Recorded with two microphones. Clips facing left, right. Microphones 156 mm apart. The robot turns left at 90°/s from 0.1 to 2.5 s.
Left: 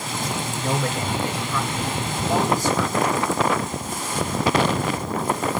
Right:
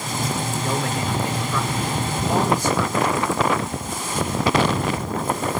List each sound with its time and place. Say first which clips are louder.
0.6 s a man speaking: left 2 dB; 100° left, 3.5 m; by 3.2 s 75° right, 3.5 m